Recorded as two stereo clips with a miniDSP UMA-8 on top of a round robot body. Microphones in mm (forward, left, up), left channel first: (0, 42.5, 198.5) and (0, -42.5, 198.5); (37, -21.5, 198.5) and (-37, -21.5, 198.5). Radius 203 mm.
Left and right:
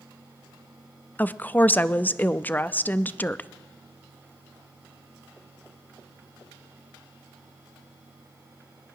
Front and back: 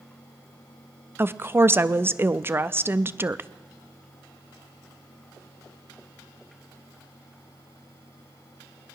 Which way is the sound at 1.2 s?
145° left.